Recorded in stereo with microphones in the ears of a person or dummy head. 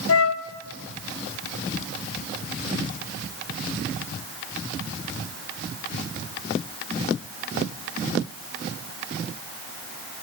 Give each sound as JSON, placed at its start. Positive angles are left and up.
{"t": 0.1, "sound": "a flute", "side_deg": 85, "distance_m": 0.9}